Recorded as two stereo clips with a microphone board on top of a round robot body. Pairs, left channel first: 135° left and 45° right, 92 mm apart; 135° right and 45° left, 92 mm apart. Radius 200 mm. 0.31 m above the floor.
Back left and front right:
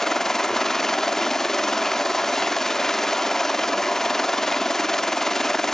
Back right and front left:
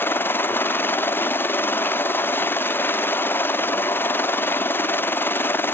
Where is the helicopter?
145° right.